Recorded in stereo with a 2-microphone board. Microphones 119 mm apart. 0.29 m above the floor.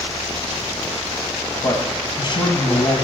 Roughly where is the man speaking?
Left.